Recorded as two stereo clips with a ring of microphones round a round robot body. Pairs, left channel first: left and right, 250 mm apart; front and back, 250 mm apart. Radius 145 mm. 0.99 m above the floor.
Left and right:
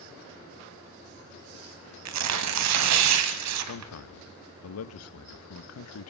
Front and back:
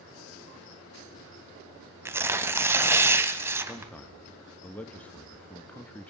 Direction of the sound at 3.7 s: 85° left.